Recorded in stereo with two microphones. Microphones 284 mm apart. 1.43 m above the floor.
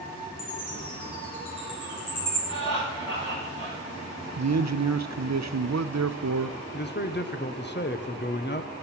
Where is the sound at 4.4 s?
70° right (ahead or behind), 0.7 m.